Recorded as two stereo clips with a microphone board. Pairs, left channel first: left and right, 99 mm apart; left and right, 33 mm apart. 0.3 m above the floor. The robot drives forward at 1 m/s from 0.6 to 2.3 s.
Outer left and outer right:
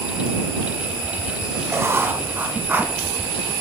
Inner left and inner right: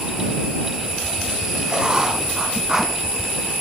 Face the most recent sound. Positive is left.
turn(degrees=-20)  # may be behind; listen again after turning